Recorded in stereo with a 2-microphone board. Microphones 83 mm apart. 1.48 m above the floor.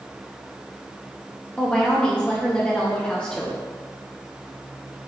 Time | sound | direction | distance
1.6 | a woman speaking | 10° left (ahead or behind) | 0.8 m